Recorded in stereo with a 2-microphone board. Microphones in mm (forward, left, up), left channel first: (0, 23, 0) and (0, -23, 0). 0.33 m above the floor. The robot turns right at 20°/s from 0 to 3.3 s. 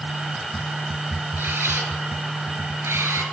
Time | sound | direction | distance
1.4 | a camera shutter | 55° right (ahead or behind) | 4.5 m